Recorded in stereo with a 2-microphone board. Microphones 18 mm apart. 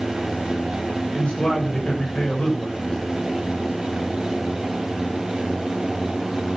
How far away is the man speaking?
About 8 m.